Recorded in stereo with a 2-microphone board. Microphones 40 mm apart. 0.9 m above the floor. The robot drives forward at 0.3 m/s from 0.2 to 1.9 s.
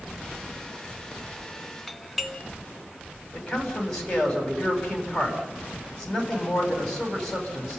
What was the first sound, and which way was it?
A doorbell, 5° right (ahead or behind).